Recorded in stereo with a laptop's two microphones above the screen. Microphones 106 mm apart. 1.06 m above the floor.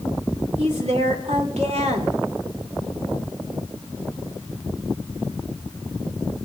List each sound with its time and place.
0.6 s a woman speaking: 75° right (ahead or behind), 2.5 m